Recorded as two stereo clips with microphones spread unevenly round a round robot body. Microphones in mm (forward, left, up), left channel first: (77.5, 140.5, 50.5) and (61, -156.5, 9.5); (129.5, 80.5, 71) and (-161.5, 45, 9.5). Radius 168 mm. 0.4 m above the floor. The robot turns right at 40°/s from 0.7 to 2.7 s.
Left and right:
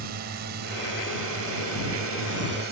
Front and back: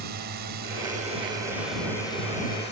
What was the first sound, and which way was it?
A drone, 140° right.